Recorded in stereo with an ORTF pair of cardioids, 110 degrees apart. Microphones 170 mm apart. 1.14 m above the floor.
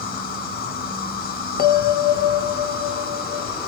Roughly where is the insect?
Ahead left.